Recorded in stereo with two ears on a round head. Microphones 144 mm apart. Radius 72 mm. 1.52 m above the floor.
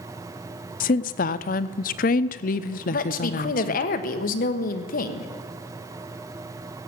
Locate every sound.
0.8 s a woman speaking: 50° left (ahead or behind), 0.6 m
2.9 s a woman speaking: 55° left (ahead or behind), 1.2 m